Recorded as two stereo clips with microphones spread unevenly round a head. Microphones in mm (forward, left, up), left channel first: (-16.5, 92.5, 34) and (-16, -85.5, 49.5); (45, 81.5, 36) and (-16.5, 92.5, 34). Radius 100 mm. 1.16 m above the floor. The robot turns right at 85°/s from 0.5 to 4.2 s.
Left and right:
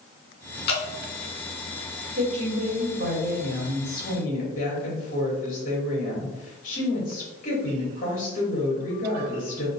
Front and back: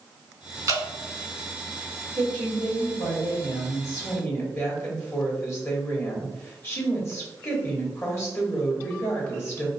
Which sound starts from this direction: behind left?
Dripping, at 0.7 s.